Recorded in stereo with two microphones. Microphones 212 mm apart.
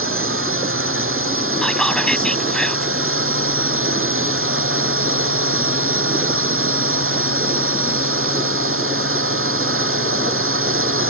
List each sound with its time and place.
0.0 s a drone: 85° right
1.6 s whispering: 5° left (ahead or behind)